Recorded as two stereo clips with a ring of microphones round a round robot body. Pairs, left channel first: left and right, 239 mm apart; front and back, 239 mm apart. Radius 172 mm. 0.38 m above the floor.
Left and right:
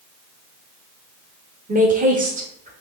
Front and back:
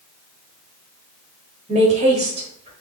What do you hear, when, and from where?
1.7 s a woman speaking: 130° right, 1.0 m